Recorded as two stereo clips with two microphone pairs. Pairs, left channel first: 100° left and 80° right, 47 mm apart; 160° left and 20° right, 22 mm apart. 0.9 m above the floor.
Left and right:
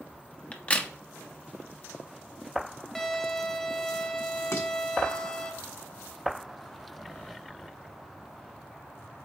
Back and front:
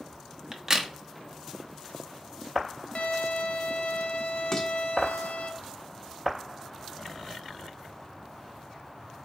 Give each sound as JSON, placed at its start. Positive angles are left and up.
{"t": 0.5, "sound": "a crack", "azimuth_deg": 40, "distance_m": 0.9}
{"t": 3.0, "sound": "a violin", "azimuth_deg": 175, "distance_m": 1.0}
{"t": 4.5, "sound": "dishes clattering", "azimuth_deg": 100, "distance_m": 1.3}